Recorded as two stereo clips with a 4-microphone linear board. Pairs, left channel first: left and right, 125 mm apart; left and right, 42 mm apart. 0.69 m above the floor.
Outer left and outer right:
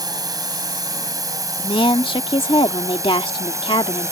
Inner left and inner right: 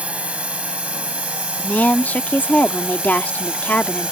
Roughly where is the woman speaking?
Left.